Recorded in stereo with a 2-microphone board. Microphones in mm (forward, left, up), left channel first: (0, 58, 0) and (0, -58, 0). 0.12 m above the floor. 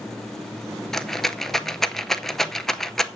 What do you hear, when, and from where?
0.9 s a rattle: 5° left (ahead or behind), 0.6 m